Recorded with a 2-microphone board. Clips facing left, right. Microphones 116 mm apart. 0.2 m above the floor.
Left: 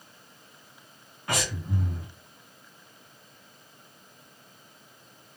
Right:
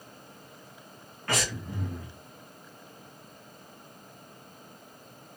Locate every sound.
1.3 s breathing: 15° left (ahead or behind), 1.6 m